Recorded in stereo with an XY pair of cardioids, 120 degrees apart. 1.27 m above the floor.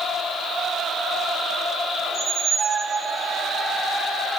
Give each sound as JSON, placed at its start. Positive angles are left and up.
{"t": 2.1, "sound": "a squeak", "azimuth_deg": -30, "distance_m": 0.6}